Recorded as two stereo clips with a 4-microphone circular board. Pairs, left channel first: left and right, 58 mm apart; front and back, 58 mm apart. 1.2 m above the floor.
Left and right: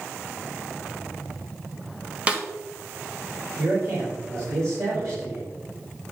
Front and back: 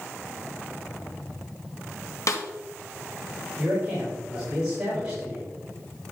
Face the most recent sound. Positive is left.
turn(degrees=-105)